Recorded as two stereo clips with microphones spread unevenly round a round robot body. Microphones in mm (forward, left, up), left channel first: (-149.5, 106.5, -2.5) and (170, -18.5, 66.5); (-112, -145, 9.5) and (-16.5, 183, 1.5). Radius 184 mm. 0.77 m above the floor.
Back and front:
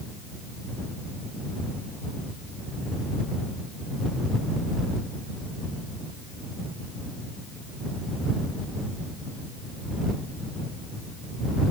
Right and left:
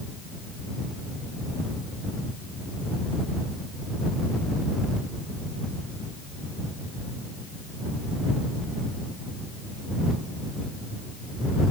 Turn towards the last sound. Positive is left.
No sound to turn to.